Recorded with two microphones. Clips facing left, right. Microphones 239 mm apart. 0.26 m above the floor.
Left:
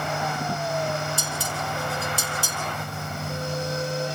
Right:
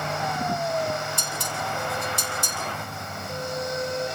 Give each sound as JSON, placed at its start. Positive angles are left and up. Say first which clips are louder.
{"t": 1.2, "sound": "dishes clattering", "louder": "left 1 dB", "side_deg": 5, "distance_m": 6.0}